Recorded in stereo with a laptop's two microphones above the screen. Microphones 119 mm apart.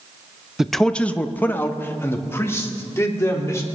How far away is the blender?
I don't hear a blender.